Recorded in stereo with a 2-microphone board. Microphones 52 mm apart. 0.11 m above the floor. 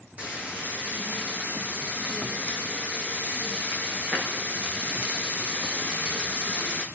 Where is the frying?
25° right (ahead or behind), 4 m.